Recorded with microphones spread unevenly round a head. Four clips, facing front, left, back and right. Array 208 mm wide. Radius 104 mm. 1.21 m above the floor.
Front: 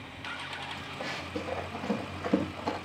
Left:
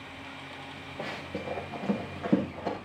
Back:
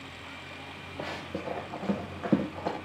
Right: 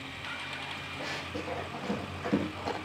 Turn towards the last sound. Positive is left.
turn(degrees=155)